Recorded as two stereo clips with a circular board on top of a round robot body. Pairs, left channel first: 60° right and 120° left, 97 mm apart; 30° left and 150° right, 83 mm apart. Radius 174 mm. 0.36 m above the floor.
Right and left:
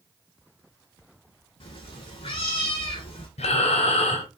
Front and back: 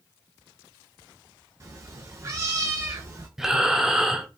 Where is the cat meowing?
95° right, 0.5 m.